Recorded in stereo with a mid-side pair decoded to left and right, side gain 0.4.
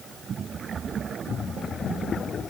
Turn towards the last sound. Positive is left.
No sound to turn to.